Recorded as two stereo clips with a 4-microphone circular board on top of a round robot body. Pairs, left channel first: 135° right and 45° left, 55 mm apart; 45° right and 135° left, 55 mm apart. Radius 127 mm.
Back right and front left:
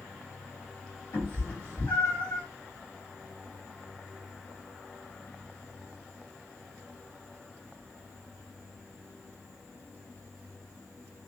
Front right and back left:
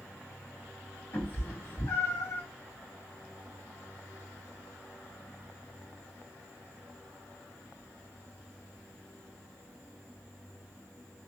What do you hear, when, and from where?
1.1 s a cat meowing: 95° right, 1.5 m